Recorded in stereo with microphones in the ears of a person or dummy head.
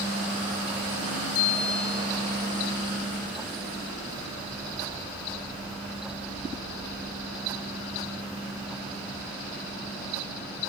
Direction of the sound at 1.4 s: 80° left.